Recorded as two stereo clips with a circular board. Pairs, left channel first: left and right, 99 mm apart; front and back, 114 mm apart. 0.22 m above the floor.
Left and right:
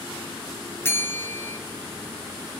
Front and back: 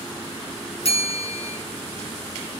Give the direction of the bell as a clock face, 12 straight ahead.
11 o'clock.